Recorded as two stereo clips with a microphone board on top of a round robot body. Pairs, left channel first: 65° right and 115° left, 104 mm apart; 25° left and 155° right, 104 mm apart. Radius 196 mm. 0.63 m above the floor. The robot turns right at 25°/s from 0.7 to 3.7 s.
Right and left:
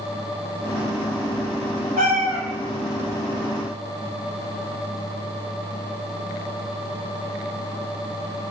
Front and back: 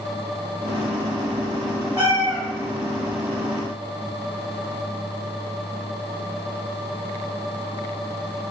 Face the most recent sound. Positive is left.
turn(degrees=180)